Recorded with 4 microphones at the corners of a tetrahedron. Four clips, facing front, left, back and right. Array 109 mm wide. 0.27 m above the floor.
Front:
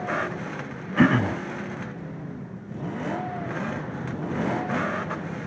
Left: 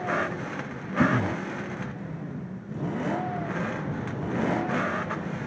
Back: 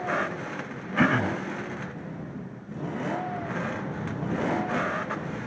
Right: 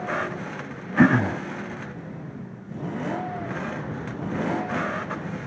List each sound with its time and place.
1.0 s throat clearing: 80° right